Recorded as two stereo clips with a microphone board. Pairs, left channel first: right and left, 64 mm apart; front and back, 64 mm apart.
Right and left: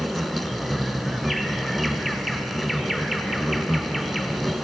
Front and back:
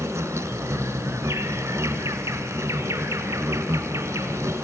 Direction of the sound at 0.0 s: 175° left.